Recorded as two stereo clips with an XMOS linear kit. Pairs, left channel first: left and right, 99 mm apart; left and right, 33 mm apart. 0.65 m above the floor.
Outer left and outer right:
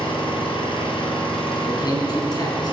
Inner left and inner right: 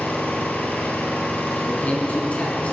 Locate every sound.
0.0 s an engine running: 55° left (ahead or behind), 4.5 m
1.7 s a man speaking: 40° left (ahead or behind), 6 m